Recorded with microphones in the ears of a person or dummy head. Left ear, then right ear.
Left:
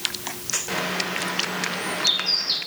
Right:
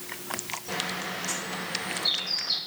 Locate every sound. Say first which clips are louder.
0.7 s a bird: left 5 dB; 60° left (ahead or behind), 6.5 m